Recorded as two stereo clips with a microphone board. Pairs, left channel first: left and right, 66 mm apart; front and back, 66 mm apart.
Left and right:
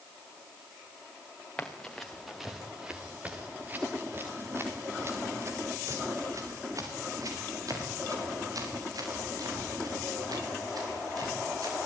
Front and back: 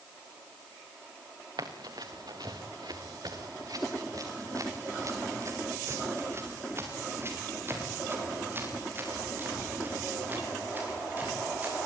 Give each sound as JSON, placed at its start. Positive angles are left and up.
{"t": 1.6, "sound": "running footsteps", "azimuth_deg": 165, "distance_m": 3.5}